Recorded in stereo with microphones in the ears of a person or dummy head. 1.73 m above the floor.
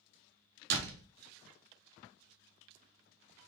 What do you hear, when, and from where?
0.7 s a door slam: 55° right (ahead or behind), 1.0 m